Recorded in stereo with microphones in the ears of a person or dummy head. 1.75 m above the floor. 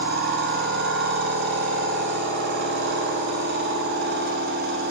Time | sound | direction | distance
0.0 | a machine running | 55° right (ahead or behind) | 1.0 m